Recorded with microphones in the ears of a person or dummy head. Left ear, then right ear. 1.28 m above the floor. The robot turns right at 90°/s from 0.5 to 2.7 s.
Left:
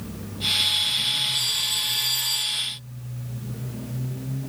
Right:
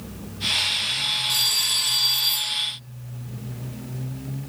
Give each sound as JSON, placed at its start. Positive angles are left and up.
{"t": 1.3, "sound": "a phone ringing", "azimuth_deg": -120, "distance_m": 2.0}